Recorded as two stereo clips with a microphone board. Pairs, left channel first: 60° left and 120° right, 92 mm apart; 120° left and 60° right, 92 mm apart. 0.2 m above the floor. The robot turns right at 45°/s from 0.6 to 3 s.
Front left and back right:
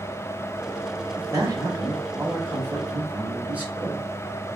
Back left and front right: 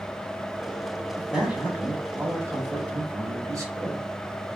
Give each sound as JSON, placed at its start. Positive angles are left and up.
{"t": 1.2, "sound": "a man speaking", "azimuth_deg": -145, "distance_m": 1.1}